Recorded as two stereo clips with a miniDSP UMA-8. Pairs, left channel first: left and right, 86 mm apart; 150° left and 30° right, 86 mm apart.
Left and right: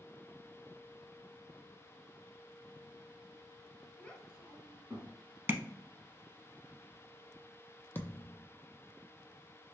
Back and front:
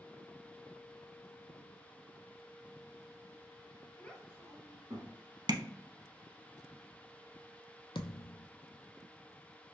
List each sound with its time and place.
4.0 s a child speaking: 135° left, 0.7 m; by 5.1 s 30° right, 1.4 m
5.5 s tapping: 30° right, 0.6 m
8.0 s a thud: 155° left, 0.6 m